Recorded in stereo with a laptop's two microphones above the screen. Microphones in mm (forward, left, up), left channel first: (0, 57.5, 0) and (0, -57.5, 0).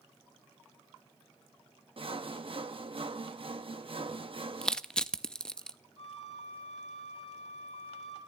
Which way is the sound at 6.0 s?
65° left (ahead or behind).